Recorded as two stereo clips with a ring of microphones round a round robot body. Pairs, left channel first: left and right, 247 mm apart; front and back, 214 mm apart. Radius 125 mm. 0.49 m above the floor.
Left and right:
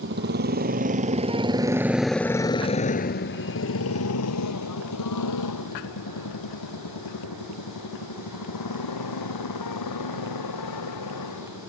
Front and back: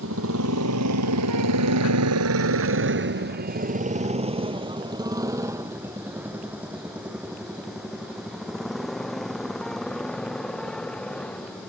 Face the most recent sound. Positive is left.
turn(degrees=85)